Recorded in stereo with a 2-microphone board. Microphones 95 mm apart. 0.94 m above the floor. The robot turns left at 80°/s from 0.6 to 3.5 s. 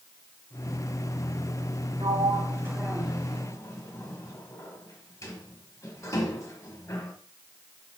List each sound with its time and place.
2.0 s a sliding door: 60° right (ahead or behind), 1.3 m; by 7.2 s 35° left (ahead or behind), 1.3 m